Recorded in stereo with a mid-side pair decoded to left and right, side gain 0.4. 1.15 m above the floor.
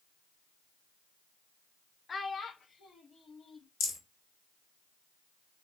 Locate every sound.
2.1 s a child speaking: 40° left, 0.5 m; by 3.7 s 65° left, 1.5 m
3.8 s a rattle: 70° left, 1.8 m